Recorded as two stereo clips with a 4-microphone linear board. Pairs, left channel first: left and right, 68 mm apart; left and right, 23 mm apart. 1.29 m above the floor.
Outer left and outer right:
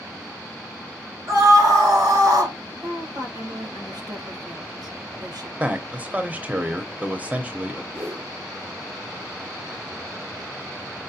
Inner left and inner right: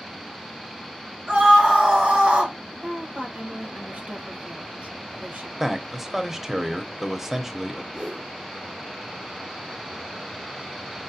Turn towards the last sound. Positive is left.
turn(degrees=-40)  # may be behind; listen again after turning